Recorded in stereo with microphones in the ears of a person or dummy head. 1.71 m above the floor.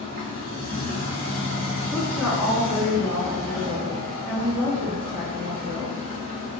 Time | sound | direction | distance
0.0 | a machine running | 40° right (ahead or behind) | 1.0 m
1.9 | a woman speaking | 5° left (ahead or behind) | 1.8 m